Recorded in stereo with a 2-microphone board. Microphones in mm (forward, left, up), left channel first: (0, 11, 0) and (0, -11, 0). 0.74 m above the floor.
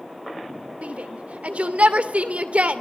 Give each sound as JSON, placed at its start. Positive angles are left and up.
{"t": 0.8, "sound": "a shout", "side_deg": -65, "distance_m": 2.5}